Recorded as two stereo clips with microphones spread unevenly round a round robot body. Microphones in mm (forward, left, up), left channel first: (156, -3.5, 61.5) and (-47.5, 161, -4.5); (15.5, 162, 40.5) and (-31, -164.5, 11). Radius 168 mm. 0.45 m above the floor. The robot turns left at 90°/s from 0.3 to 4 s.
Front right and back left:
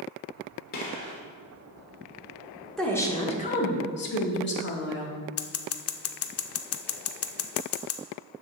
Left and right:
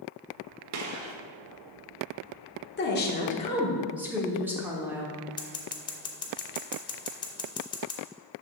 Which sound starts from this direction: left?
A woman speaking, at 2.8 s.